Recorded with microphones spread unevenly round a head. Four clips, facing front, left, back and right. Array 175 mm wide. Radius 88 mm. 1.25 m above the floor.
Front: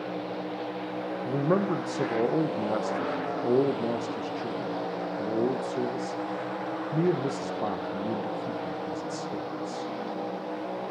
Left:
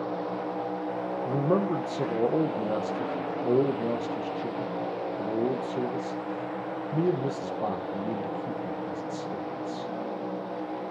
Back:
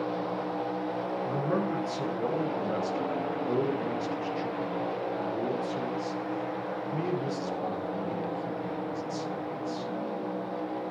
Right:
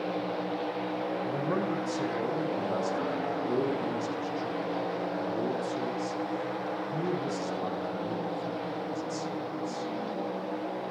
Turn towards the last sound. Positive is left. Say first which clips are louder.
# left 7 dB, front 6 dB
turn(degrees=40)